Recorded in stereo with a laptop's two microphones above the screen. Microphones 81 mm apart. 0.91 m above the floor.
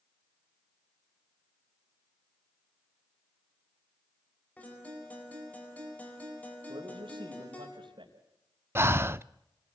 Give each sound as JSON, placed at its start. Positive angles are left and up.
{"t": 4.6, "sound": "a guitar", "side_deg": 20, "distance_m": 4.5}
{"t": 6.7, "sound": "a man speaking", "side_deg": -85, "distance_m": 4.0}
{"t": 8.8, "sound": "breathing", "side_deg": -30, "distance_m": 0.5}